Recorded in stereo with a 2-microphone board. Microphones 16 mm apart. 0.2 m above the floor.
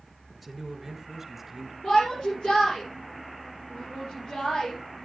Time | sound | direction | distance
0.3 | a man speaking | 10° left (ahead or behind) | 2.5 m
1.8 | a shout | 70° left (ahead or behind) | 5.5 m